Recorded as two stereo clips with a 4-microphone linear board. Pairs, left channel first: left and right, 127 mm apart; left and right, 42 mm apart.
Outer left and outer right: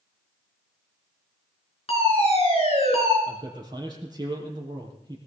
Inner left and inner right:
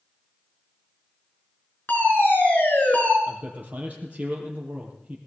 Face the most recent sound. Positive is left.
turn(degrees=-35)  # may be behind; listen again after turning